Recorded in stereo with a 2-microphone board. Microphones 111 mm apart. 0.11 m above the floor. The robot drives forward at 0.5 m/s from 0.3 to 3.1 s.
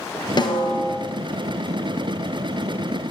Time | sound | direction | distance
0.4 | a snare drum | 45° left (ahead or behind) | 2.5 m